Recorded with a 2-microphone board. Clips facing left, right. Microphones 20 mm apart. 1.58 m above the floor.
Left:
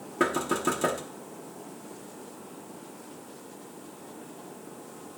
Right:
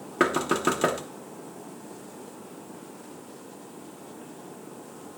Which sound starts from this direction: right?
Knocking, at 0.2 s.